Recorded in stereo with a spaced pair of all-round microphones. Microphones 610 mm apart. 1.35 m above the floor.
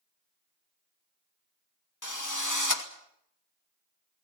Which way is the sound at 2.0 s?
30° left (ahead or behind).